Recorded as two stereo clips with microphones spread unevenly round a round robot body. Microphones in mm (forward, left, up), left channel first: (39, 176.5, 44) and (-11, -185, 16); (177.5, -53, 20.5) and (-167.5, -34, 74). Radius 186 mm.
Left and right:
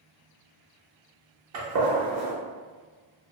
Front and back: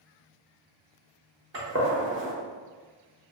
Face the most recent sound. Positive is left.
turn(degrees=-140)